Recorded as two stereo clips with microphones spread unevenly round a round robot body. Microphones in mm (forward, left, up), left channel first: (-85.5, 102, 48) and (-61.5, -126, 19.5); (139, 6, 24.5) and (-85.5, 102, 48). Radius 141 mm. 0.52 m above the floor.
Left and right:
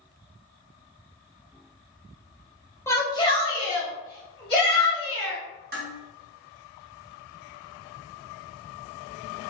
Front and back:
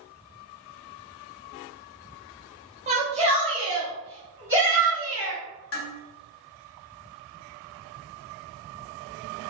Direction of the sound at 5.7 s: 35° right.